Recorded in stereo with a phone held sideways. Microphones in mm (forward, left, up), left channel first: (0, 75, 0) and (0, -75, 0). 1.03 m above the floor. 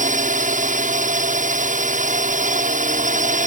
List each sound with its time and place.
0.0 s a drone: 55° right (ahead or behind)